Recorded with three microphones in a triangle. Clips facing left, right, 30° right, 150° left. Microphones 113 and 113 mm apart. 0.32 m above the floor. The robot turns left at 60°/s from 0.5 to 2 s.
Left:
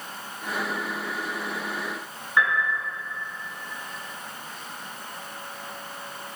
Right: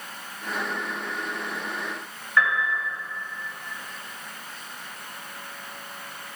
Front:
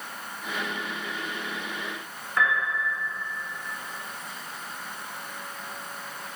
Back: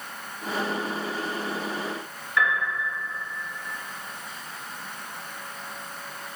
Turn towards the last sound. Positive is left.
turn(degrees=15)